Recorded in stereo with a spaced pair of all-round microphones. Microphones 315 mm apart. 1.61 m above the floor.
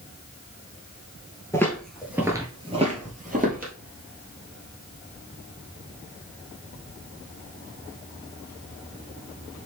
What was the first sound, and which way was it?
Footsteps, 10° left (ahead or behind).